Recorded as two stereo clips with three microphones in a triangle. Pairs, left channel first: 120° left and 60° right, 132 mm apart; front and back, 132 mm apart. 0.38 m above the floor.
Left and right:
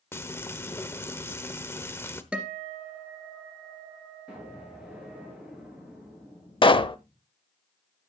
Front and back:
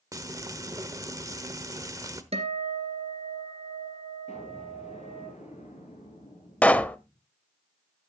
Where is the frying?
165° left, 1.0 m.